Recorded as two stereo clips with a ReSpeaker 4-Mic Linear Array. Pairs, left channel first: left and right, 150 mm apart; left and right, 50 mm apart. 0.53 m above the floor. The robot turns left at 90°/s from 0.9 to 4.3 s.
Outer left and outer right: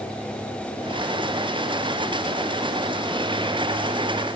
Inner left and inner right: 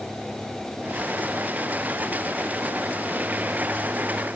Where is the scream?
I don't hear a scream.